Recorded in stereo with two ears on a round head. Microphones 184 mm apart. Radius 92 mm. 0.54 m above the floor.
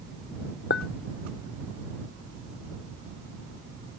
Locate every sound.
0.7 s a clink: 50° left (ahead or behind)